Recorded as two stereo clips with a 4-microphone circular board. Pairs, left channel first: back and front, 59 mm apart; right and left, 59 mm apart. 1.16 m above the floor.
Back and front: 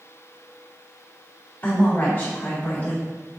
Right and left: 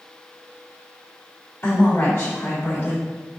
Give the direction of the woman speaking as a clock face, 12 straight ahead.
4 o'clock.